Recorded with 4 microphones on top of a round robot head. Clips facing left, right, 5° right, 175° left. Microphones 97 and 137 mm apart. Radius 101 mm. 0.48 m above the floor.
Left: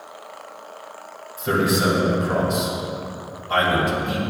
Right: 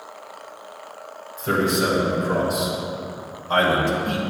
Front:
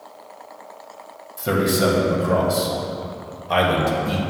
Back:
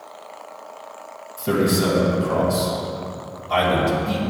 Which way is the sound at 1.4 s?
10° left.